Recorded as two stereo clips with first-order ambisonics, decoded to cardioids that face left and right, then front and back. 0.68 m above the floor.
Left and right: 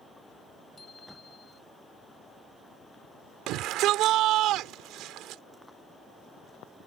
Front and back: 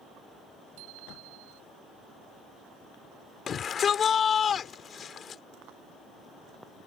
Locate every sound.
0.8 s a bicycle bell: 165° left
3.5 s a shout: 60° right